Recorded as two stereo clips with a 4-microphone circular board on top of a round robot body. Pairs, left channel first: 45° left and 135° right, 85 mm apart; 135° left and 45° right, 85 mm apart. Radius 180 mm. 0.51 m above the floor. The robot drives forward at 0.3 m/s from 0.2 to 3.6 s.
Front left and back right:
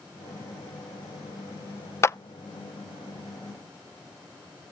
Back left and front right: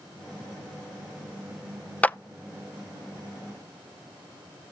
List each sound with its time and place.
2.0 s a clap: 70° left, 0.6 m; by 2.2 s 80° left, 0.6 m